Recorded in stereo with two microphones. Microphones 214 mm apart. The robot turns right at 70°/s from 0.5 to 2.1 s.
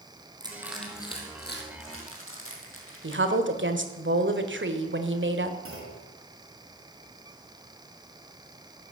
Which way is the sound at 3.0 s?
65° right (ahead or behind).